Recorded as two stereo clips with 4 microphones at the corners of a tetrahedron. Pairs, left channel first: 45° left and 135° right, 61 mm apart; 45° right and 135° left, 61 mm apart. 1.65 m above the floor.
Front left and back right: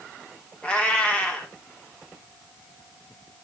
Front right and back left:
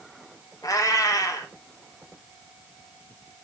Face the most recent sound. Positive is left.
turn(degrees=-25)